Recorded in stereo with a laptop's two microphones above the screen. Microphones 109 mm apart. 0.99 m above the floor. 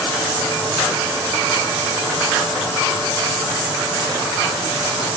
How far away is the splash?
No splash in this recording.